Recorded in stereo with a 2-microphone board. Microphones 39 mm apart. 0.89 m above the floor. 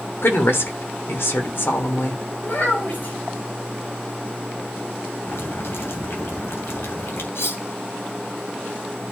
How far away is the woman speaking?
About 3 m.